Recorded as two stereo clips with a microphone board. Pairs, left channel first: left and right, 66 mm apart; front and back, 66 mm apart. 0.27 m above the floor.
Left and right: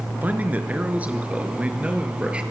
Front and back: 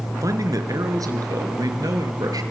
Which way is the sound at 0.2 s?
155° right.